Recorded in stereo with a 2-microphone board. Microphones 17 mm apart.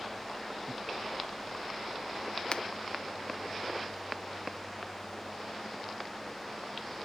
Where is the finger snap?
65° left (ahead or behind).